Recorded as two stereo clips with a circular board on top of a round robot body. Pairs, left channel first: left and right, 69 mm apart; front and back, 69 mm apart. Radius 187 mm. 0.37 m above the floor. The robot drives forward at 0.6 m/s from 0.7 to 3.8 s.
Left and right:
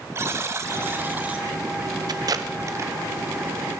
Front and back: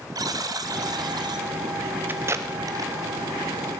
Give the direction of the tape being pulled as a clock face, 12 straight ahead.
4 o'clock.